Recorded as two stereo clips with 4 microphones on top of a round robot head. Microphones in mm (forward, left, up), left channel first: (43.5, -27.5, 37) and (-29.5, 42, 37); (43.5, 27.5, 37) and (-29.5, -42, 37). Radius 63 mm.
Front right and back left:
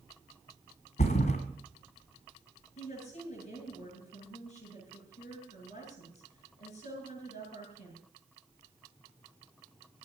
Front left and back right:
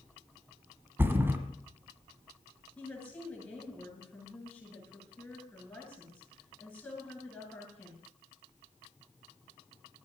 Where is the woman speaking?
35° right, 9 m.